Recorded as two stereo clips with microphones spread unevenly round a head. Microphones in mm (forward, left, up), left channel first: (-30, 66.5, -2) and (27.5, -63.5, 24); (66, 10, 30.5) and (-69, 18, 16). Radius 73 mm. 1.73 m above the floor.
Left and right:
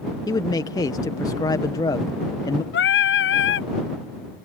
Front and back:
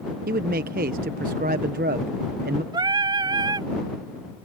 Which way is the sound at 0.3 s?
Straight behind.